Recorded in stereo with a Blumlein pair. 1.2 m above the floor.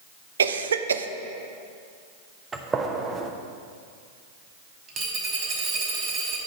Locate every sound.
0.4 s a cough: 70° right, 0.6 m
2.5 s a gunshot: 15° right, 0.8 m
4.9 s a dropped coin: 30° right, 1.9 m